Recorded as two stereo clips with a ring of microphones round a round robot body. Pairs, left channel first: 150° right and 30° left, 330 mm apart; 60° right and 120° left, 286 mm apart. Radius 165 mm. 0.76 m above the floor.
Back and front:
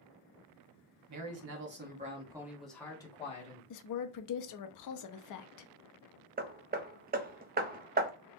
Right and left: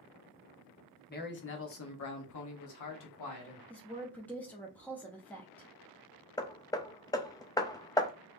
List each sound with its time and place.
1.1 s a man speaking: 5° right, 1.2 m; by 3.6 s 85° right, 1.6 m
3.7 s a woman speaking: 145° right, 0.6 m
6.4 s hammering: 5° left, 0.5 m